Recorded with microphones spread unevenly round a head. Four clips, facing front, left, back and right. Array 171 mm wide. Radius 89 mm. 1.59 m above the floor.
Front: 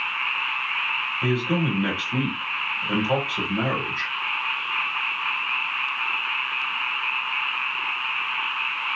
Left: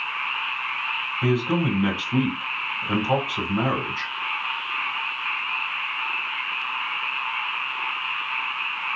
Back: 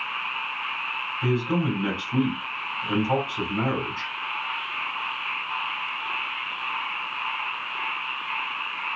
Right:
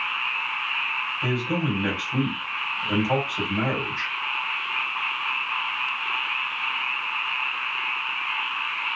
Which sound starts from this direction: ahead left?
A man speaking, at 1.2 s.